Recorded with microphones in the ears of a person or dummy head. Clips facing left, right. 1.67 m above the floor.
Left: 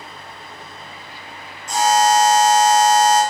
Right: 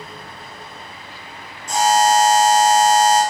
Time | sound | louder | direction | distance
1.7 | a buzzer | even | 50° right (ahead or behind) | 1.7 m